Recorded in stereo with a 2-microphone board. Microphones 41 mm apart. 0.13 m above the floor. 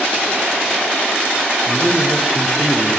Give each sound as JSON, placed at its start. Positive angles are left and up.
{"t": 1.7, "sound": "a man speaking", "side_deg": -5, "distance_m": 3.0}